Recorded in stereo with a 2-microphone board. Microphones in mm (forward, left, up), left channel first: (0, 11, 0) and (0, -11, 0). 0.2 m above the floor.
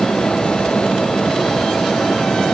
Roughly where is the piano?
I don't hear a piano.